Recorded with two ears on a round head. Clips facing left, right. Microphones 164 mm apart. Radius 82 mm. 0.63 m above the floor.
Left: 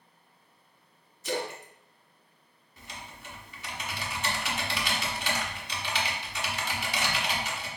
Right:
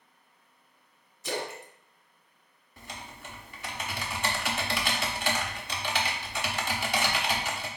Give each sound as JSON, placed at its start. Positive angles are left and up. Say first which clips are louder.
{"t": 1.2, "sound": "a splash", "louder": "left 2 dB", "side_deg": -60, "distance_m": 0.7}
{"t": 2.8, "sound": "typing on a keyboard", "louder": "right 2 dB", "side_deg": -40, "distance_m": 0.6}